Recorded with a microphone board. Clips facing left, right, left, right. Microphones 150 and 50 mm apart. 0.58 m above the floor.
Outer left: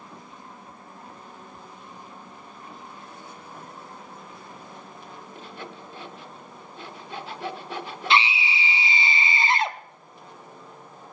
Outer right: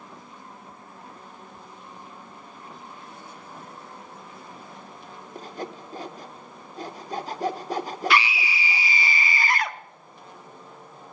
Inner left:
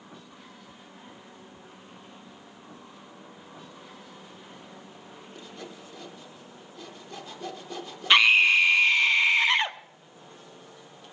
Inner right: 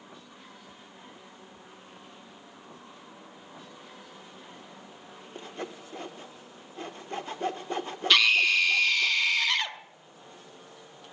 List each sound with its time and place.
5.3 s sawing: 40° right (ahead or behind), 0.7 m
8.1 s a scream: 25° left (ahead or behind), 0.6 m